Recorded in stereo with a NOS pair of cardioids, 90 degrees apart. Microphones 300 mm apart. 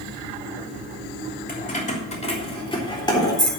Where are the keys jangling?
30° left, 3 m; by 3.5 s 10° left, 4 m.